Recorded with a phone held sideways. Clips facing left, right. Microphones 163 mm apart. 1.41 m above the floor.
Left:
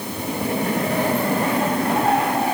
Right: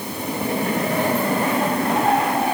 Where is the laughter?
No laughter in this recording.